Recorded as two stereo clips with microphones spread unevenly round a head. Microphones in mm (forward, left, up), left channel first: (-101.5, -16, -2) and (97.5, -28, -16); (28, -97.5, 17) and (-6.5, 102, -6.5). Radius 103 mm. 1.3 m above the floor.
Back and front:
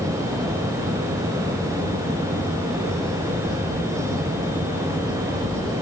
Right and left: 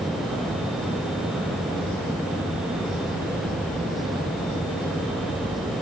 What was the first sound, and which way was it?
Only background noise.